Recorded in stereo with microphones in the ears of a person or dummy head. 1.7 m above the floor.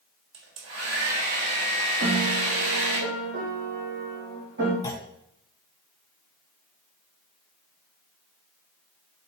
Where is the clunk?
15° left (ahead or behind), 1.1 m.